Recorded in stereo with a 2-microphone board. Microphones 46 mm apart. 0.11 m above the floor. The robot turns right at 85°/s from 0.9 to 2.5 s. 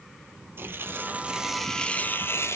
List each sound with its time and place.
0.6 s tearing paper: 60° right, 1.0 m; by 2.6 s 80° left, 1.0 m